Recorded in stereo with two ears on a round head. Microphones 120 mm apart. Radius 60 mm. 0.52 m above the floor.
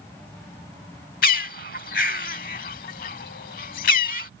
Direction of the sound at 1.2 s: 75° left (ahead or behind).